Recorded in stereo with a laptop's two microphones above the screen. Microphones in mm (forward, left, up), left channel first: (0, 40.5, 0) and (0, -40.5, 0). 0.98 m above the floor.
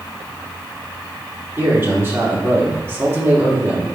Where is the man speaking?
25° right (ahead or behind), 2.5 m.